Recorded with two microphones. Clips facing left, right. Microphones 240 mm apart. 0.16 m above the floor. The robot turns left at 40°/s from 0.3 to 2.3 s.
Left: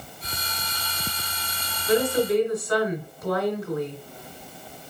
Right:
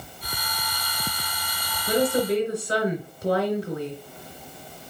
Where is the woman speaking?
40° right (ahead or behind), 2 m; by 4.0 s 30° right (ahead or behind), 2 m.